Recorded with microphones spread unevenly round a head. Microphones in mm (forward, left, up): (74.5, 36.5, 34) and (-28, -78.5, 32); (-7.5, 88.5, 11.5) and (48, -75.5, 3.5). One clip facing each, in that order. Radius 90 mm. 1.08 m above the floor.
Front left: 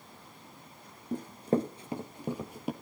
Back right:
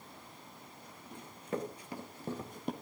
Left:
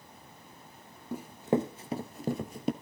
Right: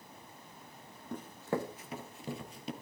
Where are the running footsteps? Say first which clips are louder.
Front left 10 dB, left 7 dB; 35° left, 1.2 m; by 2.7 s 135° left, 1.6 m.